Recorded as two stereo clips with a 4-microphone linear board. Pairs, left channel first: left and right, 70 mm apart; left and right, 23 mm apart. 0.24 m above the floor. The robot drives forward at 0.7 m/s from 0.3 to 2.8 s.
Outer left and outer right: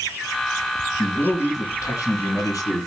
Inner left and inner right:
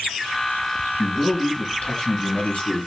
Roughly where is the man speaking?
Left.